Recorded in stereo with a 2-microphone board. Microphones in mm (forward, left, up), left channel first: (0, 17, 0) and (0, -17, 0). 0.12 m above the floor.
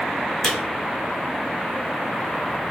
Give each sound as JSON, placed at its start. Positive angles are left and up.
{"t": 0.4, "sound": "a camera shutter", "side_deg": 20, "distance_m": 1.7}